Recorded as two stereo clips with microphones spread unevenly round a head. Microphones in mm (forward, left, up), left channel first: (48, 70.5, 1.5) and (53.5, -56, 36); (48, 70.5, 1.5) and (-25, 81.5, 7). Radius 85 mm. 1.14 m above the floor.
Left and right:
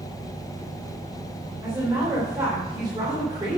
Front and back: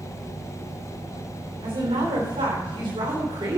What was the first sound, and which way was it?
A woman speaking, 160° right.